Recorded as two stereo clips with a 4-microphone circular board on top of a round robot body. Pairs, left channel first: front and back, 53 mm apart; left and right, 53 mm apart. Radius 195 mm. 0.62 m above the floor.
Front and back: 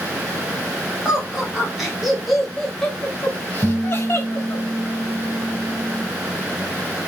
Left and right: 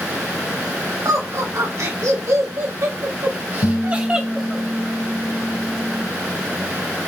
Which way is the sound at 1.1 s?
105° right.